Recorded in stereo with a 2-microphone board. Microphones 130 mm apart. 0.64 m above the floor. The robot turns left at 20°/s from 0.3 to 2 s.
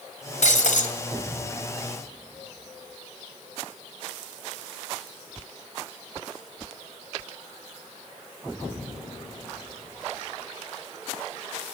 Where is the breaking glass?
65° left (ahead or behind), 2 m; by 0.9 s 75° left (ahead or behind), 2 m.